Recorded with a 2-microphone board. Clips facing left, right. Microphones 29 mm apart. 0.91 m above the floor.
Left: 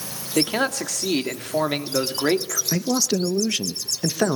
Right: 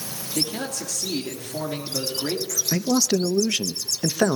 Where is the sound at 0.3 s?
70° left (ahead or behind), 2 m.